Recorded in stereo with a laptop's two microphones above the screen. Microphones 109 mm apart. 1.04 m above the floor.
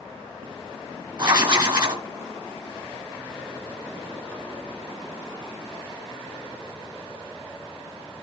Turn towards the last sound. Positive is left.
turn(degrees=-40)  # may be behind; listen again after turning